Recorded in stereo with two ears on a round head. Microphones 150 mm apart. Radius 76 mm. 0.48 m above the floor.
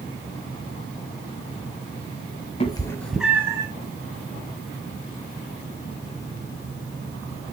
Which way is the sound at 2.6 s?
35° left (ahead or behind).